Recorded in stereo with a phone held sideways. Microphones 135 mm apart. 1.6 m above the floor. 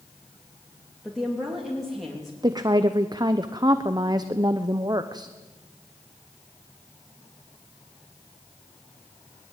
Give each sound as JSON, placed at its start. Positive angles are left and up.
{"t": 1.0, "sound": "a woman speaking", "side_deg": 0, "distance_m": 3.0}
{"t": 2.4, "sound": "a woman speaking", "side_deg": -30, "distance_m": 0.8}